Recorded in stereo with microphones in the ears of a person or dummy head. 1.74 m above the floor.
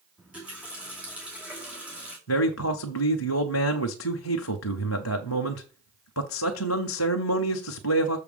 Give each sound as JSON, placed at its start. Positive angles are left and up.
{"t": 0.2, "sound": "a running tap", "side_deg": -10, "distance_m": 2.0}
{"t": 2.3, "sound": "a man speaking", "side_deg": 85, "distance_m": 0.6}